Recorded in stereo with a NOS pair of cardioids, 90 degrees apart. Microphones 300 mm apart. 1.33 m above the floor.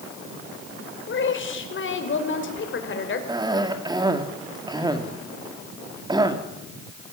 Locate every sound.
1.1 s a woman speaking: 40° left, 5 m
3.3 s a cough: 15° right, 3 m